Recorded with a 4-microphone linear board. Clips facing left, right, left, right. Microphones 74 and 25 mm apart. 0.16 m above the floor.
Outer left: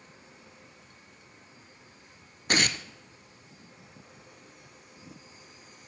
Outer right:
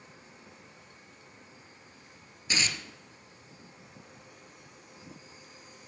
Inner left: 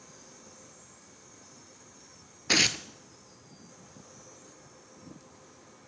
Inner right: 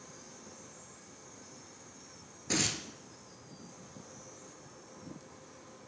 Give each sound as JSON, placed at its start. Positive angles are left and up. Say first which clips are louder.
{"t": 2.5, "sound": "tearing paper", "louder": "outer left 5 dB, inner left 8 dB", "side_deg": 60, "distance_m": 0.6}